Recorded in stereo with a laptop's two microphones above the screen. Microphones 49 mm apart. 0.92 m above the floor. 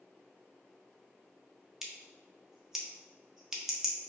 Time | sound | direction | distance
1.8 | scissors | 10° right (ahead or behind) | 0.6 m